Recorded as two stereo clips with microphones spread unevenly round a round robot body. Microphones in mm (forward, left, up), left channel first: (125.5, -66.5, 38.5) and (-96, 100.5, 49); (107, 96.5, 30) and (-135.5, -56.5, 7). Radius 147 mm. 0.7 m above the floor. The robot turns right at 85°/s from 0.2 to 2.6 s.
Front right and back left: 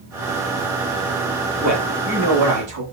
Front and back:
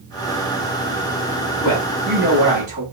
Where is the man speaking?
70° left, 2 m; by 2.8 s 155° left, 2 m.